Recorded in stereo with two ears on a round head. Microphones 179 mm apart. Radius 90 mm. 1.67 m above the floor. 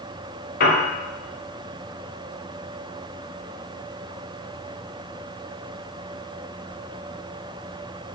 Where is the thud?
No thud in this recording.